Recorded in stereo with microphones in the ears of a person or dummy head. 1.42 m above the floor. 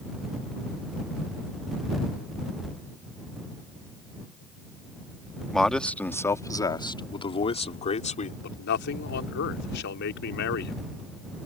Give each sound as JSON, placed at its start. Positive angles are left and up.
{"t": 5.5, "sound": "a man speaking", "side_deg": 5}
{"t": 8.4, "sound": "a man speaking", "side_deg": 70}